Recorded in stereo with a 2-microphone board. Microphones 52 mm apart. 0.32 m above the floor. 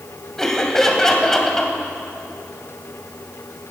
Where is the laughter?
10° left (ahead or behind), 2 m.